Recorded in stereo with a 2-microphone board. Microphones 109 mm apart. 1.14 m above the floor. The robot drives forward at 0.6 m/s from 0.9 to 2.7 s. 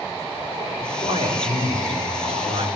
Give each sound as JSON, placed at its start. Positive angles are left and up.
{"t": 0.8, "sound": "a man speaking", "side_deg": -80, "distance_m": 3.5}